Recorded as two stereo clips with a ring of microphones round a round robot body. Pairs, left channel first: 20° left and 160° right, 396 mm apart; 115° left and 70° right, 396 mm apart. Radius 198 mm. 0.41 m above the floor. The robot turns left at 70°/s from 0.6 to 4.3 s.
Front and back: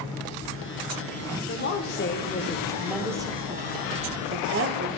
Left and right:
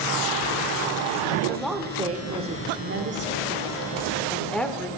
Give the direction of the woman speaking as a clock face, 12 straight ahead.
11 o'clock.